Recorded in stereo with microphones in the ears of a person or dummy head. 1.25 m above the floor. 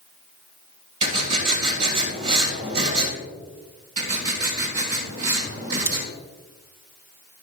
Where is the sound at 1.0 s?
40° right (ahead or behind), 3 m.